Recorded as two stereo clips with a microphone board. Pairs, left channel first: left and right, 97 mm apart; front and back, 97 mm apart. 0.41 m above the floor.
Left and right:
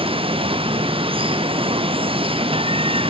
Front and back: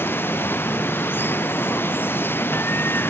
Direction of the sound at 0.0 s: 70° right.